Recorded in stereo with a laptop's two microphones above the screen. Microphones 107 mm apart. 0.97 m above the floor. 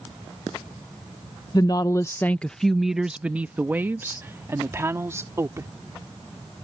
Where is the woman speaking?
40° left (ahead or behind); by 5.7 s 25° right (ahead or behind).